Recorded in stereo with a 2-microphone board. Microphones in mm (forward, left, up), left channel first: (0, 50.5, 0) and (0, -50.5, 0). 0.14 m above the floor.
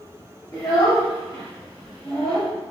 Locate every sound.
0.5 s a child speaking: 40° left (ahead or behind), 1.3 m; by 2.5 s 25° left (ahead or behind), 1.7 m